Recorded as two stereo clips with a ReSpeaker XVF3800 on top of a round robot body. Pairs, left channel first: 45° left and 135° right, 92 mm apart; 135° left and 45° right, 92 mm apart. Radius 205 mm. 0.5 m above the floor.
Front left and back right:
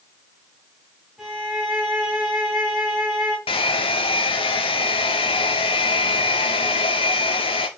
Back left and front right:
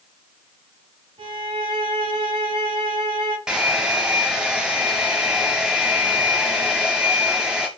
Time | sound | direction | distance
1.2 | a violin | 50° right | 2.5 m
3.5 | a hair dryer | 35° left | 0.5 m